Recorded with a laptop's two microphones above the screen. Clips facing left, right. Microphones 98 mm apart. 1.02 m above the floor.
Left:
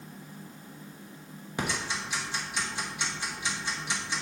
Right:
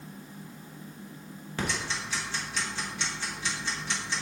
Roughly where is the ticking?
Centre.